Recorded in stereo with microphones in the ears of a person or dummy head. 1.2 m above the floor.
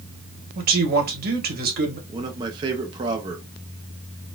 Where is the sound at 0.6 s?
50° right (ahead or behind), 1.4 m.